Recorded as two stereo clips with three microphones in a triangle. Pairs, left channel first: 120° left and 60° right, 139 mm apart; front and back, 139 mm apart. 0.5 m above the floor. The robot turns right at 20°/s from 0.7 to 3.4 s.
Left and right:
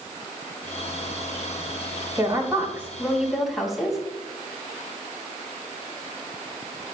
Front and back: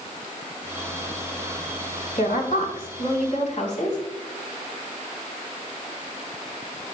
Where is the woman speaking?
5° left, 3.5 m; by 4.0 s 30° left, 3.5 m.